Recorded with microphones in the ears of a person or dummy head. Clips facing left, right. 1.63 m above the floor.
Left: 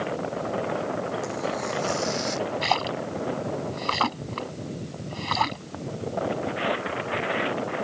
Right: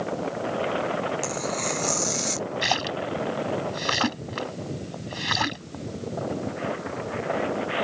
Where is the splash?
20° right (ahead or behind).